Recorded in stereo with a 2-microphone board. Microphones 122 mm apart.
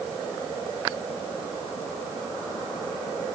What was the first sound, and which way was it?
Only background noise.